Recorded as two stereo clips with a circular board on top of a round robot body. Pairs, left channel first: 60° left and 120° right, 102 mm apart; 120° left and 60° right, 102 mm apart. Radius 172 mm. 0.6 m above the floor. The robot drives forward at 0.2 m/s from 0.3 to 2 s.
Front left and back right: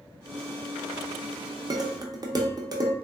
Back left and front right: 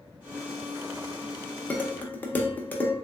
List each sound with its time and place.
1.7 s dishes clattering: 165° right, 0.7 m; by 3.0 s 170° right, 0.7 m